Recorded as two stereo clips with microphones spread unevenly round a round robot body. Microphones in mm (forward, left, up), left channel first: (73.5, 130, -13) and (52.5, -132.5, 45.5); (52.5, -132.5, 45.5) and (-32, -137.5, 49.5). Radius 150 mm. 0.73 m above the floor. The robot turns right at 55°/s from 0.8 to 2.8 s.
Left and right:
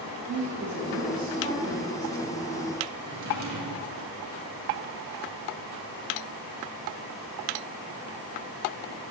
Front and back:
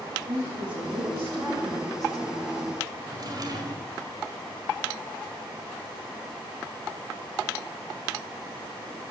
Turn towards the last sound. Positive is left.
turn(degrees=-135)